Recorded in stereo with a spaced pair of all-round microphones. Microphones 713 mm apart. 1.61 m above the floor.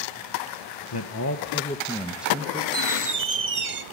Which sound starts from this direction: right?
A squeak, at 2.7 s.